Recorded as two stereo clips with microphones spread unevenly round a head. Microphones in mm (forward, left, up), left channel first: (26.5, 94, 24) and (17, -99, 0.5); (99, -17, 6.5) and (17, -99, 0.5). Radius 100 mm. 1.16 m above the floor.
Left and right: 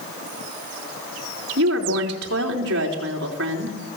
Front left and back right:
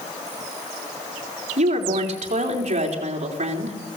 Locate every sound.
1.6 s a woman speaking: 125° right, 4 m